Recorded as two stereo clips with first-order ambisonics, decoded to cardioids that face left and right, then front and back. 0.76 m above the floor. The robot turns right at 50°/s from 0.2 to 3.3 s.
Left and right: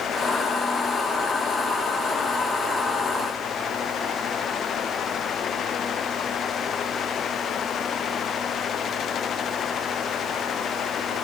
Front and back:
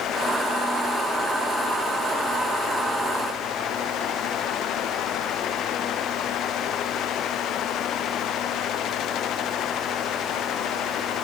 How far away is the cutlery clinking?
I don't hear cutlery clinking.